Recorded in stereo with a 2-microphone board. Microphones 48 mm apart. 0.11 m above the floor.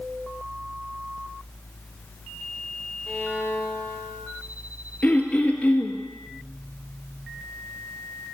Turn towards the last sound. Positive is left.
turn(degrees=35)  # may be behind; listen again after turning